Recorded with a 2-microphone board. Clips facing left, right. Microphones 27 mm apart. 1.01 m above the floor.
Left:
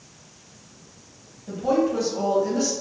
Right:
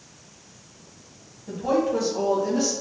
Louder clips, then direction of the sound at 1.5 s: Left 1 dB; 5° left (ahead or behind).